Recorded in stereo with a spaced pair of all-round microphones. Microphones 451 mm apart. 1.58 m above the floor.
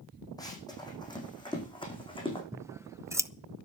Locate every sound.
0.4 s running footsteps: 10° left (ahead or behind), 4.5 m
2.5 s scissors: 5° right (ahead or behind), 0.6 m